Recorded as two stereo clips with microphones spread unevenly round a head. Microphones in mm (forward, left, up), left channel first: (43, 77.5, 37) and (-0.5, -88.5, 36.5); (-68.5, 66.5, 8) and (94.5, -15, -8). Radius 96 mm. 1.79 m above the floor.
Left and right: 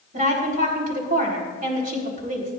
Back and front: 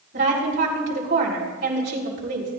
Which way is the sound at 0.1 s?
65° right.